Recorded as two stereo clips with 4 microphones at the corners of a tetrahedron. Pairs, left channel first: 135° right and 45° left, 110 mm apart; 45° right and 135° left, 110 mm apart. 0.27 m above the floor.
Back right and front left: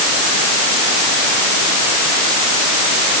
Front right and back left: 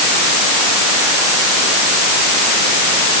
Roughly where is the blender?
I don't hear a blender.